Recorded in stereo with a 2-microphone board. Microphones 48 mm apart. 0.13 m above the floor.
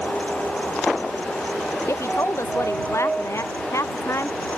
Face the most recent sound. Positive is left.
turn(degrees=75)  # may be behind; listen again after turning